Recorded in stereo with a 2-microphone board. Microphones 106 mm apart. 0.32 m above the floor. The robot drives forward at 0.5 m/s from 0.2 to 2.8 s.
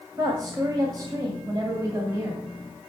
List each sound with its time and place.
0.2 s a woman speaking: 40° right (ahead or behind), 1.7 m; by 2.5 s 30° right (ahead or behind), 2.5 m